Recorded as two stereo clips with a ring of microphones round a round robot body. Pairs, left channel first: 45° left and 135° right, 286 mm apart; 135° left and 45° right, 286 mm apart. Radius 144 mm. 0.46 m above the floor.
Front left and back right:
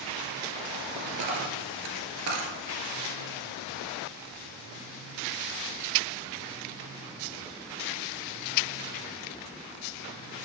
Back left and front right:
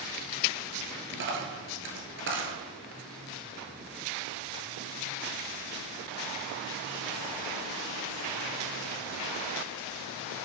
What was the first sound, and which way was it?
A dropped coin, 95° right.